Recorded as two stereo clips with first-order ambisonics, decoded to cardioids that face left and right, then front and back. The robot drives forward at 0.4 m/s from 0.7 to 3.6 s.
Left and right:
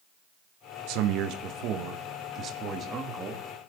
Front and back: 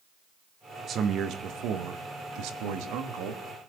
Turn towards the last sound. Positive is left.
turn(degrees=-155)